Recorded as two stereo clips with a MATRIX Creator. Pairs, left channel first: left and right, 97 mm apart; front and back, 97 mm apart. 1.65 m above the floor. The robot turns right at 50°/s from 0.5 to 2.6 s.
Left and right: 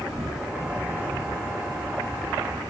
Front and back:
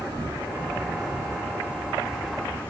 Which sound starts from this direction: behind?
An insect, at 0.0 s.